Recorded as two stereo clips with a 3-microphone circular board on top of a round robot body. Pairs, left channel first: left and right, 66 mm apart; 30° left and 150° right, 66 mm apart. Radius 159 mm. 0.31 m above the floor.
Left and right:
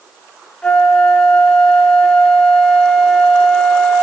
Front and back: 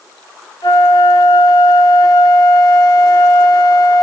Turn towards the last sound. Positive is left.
turn(degrees=15)